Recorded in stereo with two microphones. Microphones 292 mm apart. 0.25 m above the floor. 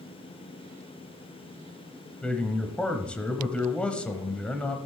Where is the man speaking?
5° left (ahead or behind), 1.1 m.